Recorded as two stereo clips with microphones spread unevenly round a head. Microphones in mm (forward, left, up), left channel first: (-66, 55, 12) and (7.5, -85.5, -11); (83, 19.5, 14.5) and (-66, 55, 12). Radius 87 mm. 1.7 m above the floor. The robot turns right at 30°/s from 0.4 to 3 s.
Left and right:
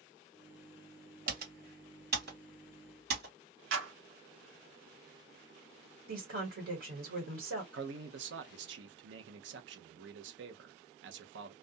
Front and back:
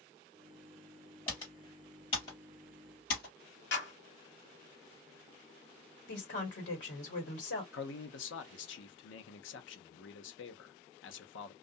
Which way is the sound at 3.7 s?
50° right.